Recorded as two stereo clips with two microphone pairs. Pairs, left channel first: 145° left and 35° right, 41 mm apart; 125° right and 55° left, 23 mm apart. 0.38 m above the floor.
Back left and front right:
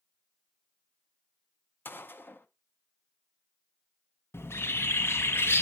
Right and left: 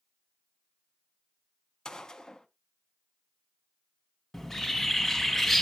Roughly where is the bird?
Behind left.